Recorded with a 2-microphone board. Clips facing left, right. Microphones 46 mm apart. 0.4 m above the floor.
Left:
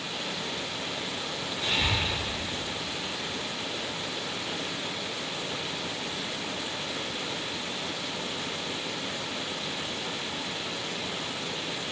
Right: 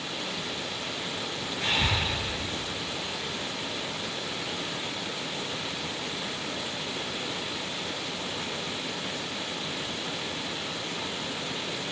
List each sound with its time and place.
1.6 s breathing: 50° right (ahead or behind), 3.5 m